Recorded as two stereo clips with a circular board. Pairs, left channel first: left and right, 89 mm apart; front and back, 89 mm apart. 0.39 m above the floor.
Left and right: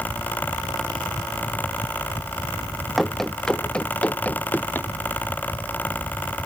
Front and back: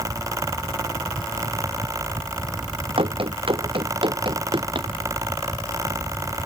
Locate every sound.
3.0 s running footsteps: straight behind; by 4.9 s 155° left